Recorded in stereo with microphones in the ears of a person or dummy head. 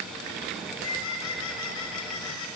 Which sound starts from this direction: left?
A bird, at 0.6 s.